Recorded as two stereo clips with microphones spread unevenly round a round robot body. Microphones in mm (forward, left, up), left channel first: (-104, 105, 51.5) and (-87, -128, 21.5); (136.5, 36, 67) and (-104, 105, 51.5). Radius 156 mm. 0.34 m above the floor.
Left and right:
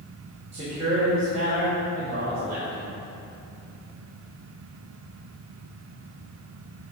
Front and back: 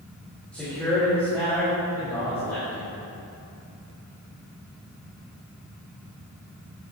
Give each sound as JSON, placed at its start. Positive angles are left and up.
{"t": 0.5, "sound": "a man speaking", "azimuth_deg": -105, "distance_m": 2.0}